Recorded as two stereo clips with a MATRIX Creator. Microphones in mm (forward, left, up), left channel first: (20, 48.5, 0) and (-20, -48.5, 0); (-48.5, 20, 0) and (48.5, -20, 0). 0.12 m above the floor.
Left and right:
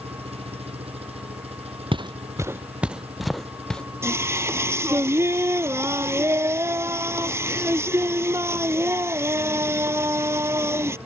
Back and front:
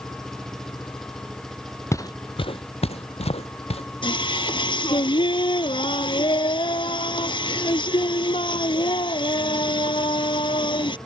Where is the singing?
175° right.